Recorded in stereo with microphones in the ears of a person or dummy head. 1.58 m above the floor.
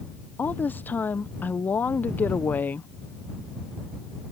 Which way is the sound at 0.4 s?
10° left (ahead or behind).